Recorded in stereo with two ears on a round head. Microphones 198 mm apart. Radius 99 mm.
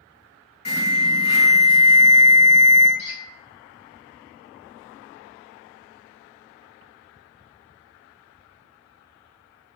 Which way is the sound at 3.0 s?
80° left.